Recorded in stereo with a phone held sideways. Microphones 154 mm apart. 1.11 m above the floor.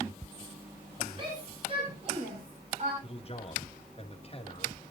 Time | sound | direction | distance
1.2 | a shout | 30° right (ahead or behind) | 6.5 m
3.0 | a man speaking | 40° left (ahead or behind) | 2.5 m